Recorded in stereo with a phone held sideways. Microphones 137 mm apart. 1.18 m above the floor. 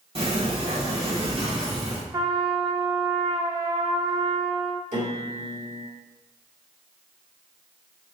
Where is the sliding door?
45° right (ahead or behind), 1.9 m.